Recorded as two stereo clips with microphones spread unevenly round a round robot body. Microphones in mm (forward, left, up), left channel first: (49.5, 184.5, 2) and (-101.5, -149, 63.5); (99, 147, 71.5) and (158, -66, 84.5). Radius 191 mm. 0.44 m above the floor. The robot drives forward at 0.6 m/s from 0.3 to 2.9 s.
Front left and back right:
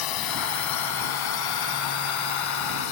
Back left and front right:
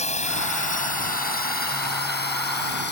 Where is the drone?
50° left; by 2.9 s 70° left.